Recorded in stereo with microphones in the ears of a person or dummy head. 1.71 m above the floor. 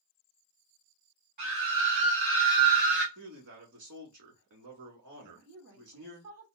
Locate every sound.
1.4 s a scream: 50° right (ahead or behind), 1.1 m; by 3.0 s 75° right (ahead or behind), 2.0 m
3.1 s a man speaking: 50° right (ahead or behind), 1.7 m
5.2 s a woman speaking: 55° right (ahead or behind), 1.0 m